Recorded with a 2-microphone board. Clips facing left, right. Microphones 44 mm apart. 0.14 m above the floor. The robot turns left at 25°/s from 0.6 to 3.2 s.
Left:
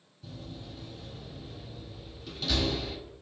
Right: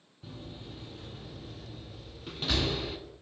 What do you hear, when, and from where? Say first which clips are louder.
0.2 s a door slam: left 1 dB; 25° right (ahead or behind), 0.9 m; by 3.0 s 30° right (ahead or behind), 0.9 m